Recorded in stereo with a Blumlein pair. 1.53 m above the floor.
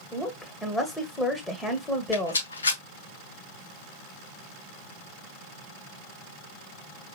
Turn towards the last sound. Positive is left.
turn(degrees=70)